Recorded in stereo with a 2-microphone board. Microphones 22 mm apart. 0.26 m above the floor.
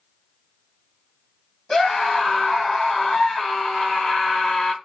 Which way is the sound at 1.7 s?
35° left (ahead or behind).